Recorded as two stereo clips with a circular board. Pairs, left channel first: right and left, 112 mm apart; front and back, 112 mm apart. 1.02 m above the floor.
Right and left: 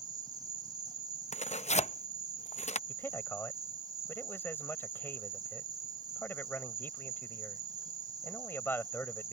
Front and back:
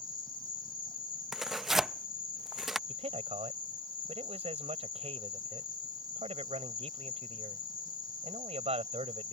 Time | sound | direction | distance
0.0 | an insect | 40° left | ?
1.3 | tearing paper | 90° right | ?
2.9 | a man speaking | 160° right | ?